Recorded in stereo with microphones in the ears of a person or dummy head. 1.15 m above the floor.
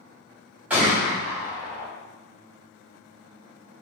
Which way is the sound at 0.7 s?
10° right (ahead or behind).